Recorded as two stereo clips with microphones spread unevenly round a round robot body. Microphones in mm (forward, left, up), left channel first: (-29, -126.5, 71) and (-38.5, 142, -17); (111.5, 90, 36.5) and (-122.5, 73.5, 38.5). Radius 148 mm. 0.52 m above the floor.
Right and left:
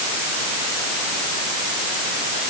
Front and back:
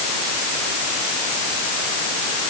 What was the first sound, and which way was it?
Only background noise.